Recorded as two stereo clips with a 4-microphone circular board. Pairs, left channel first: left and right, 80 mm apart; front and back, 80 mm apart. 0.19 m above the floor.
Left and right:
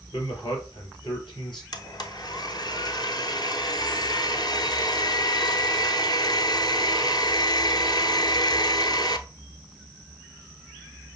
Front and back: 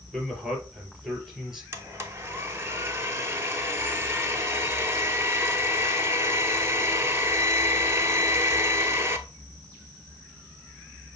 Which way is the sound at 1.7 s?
120° left.